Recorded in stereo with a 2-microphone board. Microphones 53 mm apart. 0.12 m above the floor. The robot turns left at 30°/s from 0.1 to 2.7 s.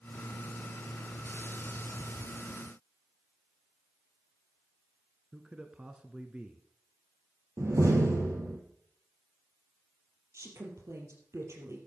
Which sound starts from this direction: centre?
A man speaking, at 5.3 s.